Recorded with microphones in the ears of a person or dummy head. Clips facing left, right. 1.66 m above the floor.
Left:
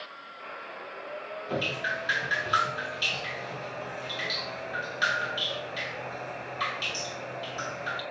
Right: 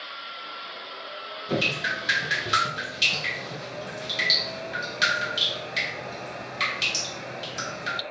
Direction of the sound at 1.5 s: 35° right (ahead or behind).